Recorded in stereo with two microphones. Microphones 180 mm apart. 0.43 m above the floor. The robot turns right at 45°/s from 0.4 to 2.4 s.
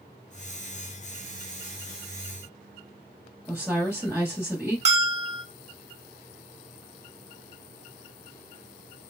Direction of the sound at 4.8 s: 40° right (ahead or behind).